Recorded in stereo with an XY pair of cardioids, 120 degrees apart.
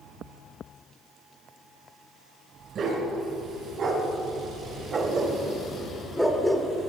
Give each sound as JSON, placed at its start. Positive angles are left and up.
{"t": 2.8, "sound": "a dog barking", "azimuth_deg": -55, "distance_m": 2.5}